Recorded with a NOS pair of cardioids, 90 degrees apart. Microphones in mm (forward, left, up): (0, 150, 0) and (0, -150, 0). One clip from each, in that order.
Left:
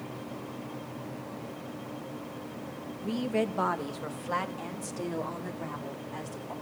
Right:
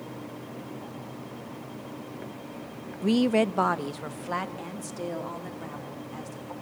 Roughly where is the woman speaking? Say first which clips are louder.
Right 7 dB; ahead right.